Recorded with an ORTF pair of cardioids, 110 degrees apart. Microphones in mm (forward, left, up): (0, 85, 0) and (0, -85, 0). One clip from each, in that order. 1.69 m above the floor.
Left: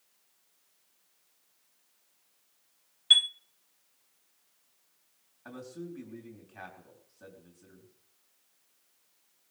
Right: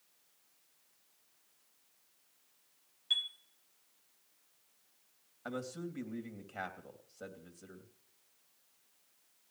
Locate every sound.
3.1 s a chime: 60° left, 0.6 m
5.5 s a man speaking: 55° right, 3 m